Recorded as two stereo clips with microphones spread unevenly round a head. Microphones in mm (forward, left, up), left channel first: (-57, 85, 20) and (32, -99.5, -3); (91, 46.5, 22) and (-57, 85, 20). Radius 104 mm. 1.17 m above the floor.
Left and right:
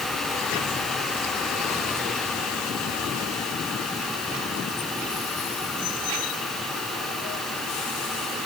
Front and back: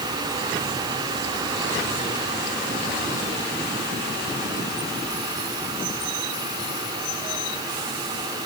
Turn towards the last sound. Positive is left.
No sound to turn to.